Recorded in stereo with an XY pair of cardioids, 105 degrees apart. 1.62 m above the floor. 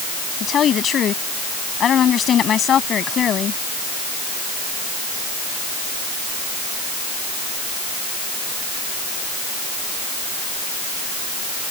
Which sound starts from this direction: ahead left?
A woman speaking, at 0.4 s.